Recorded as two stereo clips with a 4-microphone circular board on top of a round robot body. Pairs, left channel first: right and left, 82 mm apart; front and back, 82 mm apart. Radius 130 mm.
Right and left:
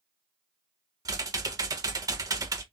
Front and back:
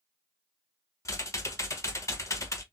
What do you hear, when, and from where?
1.1 s typing on a keyboard: 50° left, 1.2 m